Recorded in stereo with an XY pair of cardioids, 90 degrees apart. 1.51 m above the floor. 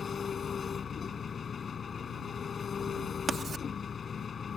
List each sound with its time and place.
0.0 s an engine running: 45° left
3.3 s writing: 55° right